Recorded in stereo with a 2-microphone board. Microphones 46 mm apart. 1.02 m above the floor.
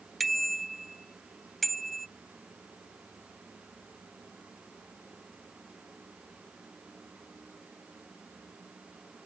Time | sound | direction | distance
0.2 | a bicycle bell | centre (ahead or behind) | ?